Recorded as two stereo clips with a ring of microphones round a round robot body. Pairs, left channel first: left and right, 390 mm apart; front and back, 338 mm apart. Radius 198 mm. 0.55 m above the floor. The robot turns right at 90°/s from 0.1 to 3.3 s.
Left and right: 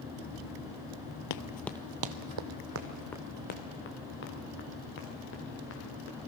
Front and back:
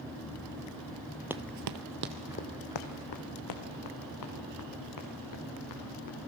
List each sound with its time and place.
1.3 s running footsteps: 95° left, 0.8 m; by 6.2 s 30° left, 6.5 m